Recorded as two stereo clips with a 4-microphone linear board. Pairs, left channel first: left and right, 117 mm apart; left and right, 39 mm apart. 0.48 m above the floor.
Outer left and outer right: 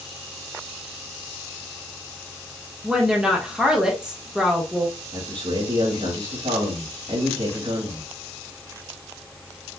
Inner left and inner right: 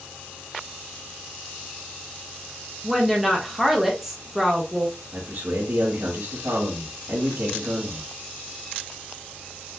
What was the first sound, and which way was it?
A woman speaking, 5° right (ahead or behind).